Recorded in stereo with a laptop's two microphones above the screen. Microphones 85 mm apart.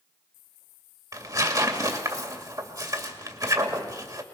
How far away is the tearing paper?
About 2.5 m.